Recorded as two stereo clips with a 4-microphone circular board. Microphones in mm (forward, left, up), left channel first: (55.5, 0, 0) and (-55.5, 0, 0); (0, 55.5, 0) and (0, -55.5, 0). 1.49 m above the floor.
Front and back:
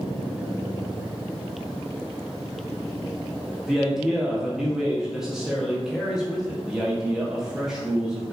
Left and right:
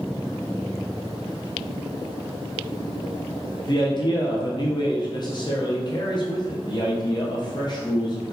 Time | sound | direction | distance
3.7 | a man speaking | 95° left | 0.5 m